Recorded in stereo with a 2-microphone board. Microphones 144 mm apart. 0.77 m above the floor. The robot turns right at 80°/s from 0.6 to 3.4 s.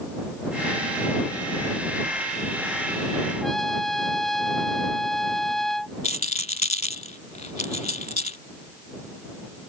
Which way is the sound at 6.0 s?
50° left (ahead or behind).